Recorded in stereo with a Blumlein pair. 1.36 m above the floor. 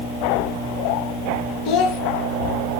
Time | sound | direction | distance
1.6 | a child speaking | 40° left | 0.5 m